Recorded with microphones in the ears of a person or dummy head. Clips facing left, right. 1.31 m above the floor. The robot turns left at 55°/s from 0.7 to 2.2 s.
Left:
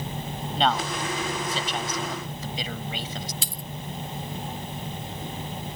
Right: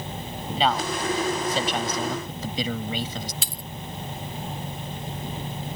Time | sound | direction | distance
0.6 | a man speaking | straight ahead | ?
3.4 | a dropped coin | 55° right (ahead or behind) | ?